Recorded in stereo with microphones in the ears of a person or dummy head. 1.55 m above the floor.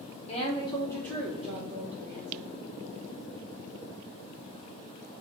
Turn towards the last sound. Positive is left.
turn(degrees=-25)  # may be behind; listen again after turning